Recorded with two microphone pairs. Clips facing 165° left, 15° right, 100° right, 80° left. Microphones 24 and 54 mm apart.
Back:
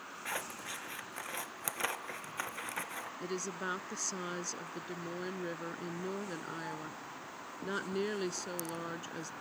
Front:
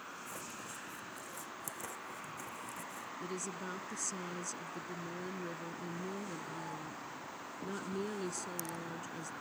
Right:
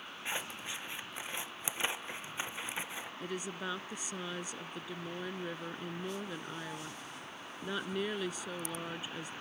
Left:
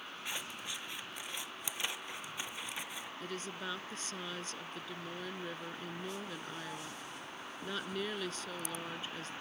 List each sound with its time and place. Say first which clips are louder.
0.2 s scissors: back 6 dB, right 4 dB; 165° right
3.2 s a woman speaking: back 4 dB, right 3 dB; 170° right